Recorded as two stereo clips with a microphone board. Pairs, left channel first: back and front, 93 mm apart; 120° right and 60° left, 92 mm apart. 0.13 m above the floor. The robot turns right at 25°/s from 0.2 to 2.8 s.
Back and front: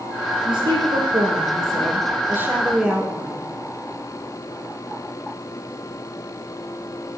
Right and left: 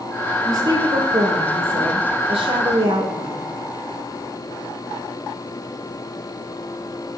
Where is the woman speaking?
15° left, 4 m; by 3.5 s 75° left, 4 m.